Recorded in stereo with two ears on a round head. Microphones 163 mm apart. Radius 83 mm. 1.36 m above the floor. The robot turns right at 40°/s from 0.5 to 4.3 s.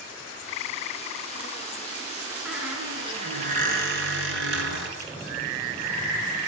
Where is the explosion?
20° right (ahead or behind), 5 m.